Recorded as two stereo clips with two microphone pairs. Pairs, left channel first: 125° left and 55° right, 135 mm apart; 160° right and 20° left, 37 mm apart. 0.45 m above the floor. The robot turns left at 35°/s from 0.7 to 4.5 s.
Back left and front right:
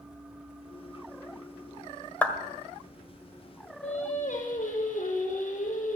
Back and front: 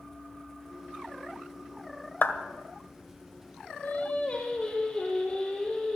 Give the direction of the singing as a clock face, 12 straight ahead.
7 o'clock.